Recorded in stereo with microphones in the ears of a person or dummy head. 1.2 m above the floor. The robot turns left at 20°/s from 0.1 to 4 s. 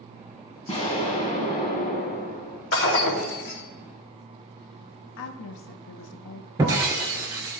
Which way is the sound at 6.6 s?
20° right (ahead or behind).